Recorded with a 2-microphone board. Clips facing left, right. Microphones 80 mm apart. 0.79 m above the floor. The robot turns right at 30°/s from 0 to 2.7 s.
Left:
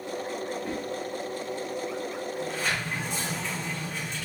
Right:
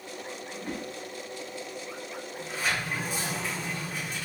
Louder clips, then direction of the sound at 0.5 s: Left 4 dB; centre (ahead or behind).